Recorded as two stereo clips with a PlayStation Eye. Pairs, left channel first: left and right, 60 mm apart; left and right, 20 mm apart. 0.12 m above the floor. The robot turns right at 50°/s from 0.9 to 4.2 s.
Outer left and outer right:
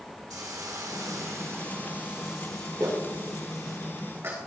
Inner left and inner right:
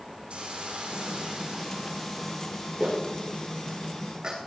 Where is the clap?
70° right (ahead or behind), 7.5 m; by 4.4 s 35° right (ahead or behind), 7.5 m.